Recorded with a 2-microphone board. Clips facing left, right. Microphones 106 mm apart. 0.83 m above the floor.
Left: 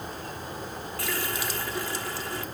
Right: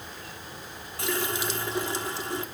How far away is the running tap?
About 1.2 m.